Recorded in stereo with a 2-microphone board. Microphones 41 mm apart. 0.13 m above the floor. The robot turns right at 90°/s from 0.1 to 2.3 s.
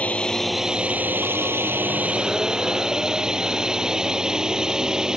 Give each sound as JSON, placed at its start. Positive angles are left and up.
{"t": 0.0, "sound": "a drone", "azimuth_deg": 145}